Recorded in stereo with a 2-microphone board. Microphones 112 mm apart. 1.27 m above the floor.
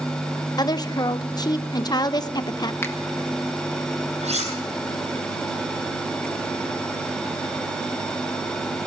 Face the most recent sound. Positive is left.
turn(degrees=-75)  # may be behind; listen again after turning